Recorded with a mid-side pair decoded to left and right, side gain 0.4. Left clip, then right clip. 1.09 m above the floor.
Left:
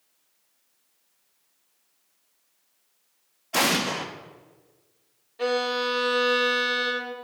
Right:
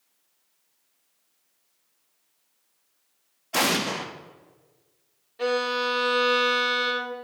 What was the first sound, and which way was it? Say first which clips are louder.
An explosion: left 1 dB; 5° right.